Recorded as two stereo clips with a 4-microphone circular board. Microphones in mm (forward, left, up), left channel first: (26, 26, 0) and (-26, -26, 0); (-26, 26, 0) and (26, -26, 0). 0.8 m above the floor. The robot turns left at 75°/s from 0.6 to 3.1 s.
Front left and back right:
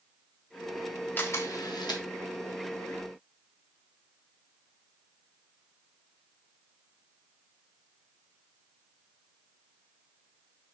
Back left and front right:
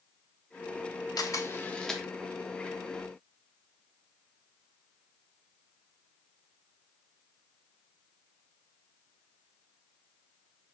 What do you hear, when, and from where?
1.2 s a camera shutter: 105° left, 0.7 m; by 2.0 s 40° left, 0.7 m